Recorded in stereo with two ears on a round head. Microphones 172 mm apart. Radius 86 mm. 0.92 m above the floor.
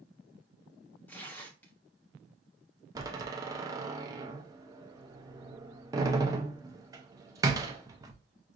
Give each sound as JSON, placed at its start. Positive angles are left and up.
{"t": 1.1, "sound": "tearing paper", "side_deg": 10, "distance_m": 0.9}
{"t": 3.0, "sound": "a door slam", "side_deg": -20, "distance_m": 0.7}